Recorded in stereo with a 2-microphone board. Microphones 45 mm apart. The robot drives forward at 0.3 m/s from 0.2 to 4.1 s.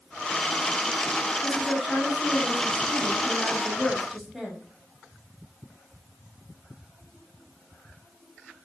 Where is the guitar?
No guitar in this recording.